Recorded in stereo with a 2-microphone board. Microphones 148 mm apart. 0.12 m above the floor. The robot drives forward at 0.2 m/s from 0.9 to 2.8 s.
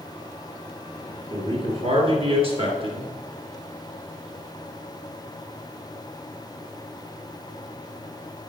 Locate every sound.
1.3 s a man speaking: 40° right (ahead or behind), 1.9 m